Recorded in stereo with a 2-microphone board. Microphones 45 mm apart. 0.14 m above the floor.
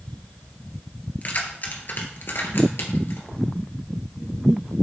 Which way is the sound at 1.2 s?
40° left (ahead or behind).